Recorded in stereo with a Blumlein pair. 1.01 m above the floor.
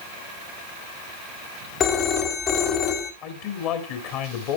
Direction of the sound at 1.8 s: 30° left.